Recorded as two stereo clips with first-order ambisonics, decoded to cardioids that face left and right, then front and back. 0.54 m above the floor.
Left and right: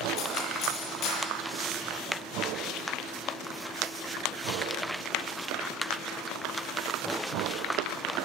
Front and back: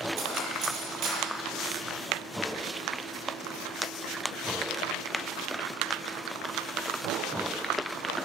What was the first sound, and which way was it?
Cutlery clinking, 140° left.